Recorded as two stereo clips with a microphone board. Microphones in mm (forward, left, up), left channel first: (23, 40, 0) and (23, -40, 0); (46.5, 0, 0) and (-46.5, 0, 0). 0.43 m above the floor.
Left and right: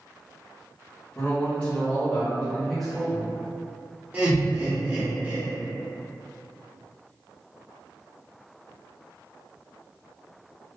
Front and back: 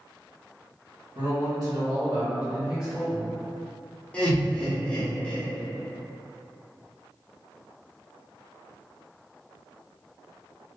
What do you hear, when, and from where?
1.1 s a man speaking: 160° left, 1.8 m; by 3.3 s 15° right, 1.0 m
4.1 s laughter: 50° right, 1.0 m